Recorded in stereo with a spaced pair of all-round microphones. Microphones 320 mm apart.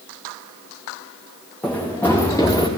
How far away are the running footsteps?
About 7 m.